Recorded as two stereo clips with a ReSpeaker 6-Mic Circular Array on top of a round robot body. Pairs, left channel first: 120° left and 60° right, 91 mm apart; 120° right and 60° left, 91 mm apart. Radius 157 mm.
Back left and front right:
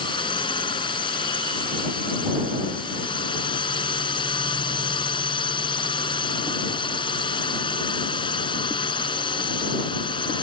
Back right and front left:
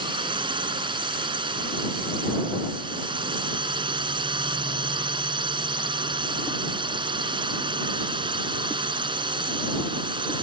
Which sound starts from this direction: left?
A drone, at 0.0 s.